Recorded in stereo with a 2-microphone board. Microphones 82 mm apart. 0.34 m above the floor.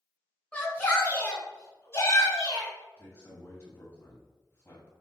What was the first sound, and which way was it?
A shout, 20° left (ahead or behind).